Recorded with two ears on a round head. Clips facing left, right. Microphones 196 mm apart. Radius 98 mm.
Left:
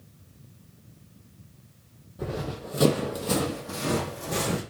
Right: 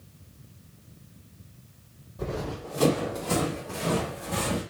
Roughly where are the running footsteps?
Centre.